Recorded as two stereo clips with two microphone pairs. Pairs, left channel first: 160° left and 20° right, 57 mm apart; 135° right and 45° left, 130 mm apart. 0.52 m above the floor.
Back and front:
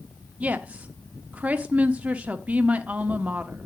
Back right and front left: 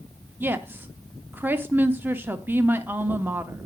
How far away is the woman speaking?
About 0.8 m.